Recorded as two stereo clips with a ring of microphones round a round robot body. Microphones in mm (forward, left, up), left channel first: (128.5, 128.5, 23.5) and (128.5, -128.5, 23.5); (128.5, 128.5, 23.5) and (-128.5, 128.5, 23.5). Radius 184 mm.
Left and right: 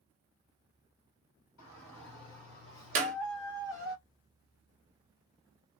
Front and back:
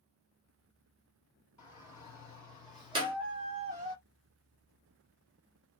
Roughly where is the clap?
Behind right.